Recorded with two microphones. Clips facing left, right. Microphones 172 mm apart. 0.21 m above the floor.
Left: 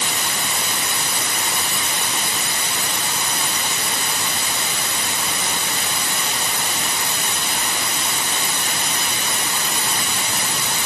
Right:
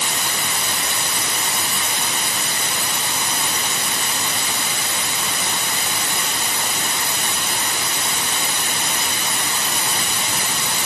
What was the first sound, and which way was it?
Only background noise.